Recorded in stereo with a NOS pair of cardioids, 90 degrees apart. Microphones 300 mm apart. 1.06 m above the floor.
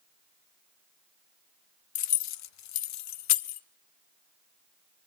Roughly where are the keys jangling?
Ahead left.